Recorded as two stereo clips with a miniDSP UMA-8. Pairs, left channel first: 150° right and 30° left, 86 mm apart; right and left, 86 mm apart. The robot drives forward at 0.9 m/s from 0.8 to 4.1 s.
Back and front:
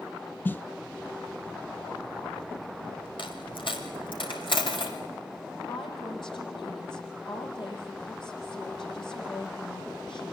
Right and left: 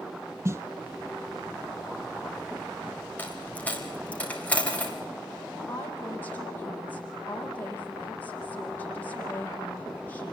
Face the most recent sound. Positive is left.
turn(degrees=-155)